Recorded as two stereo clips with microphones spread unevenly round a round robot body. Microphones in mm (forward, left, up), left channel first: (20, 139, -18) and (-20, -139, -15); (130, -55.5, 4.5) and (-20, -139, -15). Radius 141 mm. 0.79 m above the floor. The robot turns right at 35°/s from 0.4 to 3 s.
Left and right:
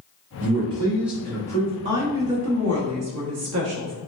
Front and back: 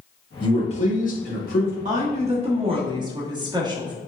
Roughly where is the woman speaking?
Behind right.